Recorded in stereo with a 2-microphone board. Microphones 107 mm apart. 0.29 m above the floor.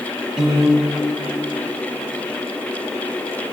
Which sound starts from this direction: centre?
A piano, at 0.4 s.